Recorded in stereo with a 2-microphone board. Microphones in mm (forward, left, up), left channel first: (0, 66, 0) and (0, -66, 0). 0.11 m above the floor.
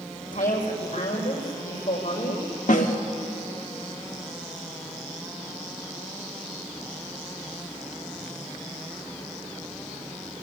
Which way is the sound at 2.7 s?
75° left (ahead or behind).